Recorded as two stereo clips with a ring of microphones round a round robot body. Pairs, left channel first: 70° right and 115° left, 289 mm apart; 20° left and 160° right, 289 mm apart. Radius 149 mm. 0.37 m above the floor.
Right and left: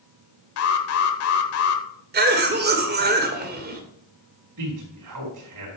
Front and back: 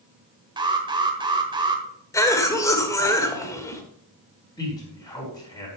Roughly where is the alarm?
Right.